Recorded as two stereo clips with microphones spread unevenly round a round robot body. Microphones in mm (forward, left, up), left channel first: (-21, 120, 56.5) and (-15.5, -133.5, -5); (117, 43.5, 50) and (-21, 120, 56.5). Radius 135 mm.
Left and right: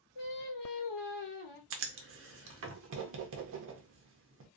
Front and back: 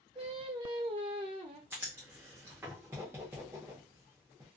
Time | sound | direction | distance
0.1 | singing | 90° left | 1.1 m
1.7 | writing | 130° right | 0.6 m